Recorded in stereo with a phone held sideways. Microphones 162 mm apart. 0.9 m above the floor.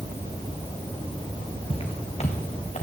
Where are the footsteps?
35° left (ahead or behind), 3.5 m; by 2.8 s 45° left (ahead or behind), 4.5 m.